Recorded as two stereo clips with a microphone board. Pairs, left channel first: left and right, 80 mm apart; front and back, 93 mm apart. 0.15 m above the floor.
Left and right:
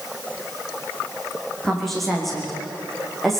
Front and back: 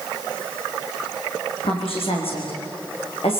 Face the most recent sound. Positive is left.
turn(degrees=5)